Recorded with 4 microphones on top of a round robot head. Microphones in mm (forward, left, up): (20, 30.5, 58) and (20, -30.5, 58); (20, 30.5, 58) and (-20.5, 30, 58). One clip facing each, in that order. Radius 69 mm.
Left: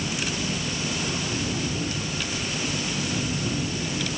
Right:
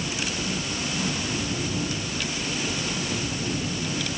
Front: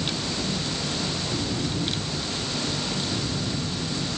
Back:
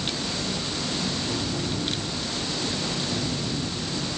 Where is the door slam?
No door slam in this recording.